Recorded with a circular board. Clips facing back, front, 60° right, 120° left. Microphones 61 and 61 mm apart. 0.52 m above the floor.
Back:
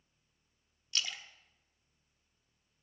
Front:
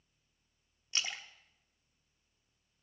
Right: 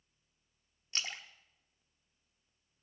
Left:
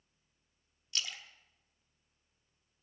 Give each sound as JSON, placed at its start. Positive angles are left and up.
{"t": 0.9, "sound": "a splash", "azimuth_deg": -40, "distance_m": 1.0}